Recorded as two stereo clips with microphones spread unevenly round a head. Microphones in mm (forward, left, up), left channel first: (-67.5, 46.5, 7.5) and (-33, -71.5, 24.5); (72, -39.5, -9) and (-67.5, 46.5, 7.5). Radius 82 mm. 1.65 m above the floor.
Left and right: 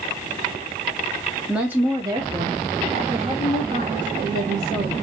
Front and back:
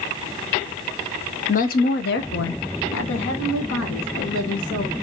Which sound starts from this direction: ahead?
A woman speaking, at 1.5 s.